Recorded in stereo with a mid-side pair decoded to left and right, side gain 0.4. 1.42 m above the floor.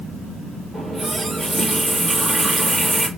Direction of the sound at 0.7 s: 25° right.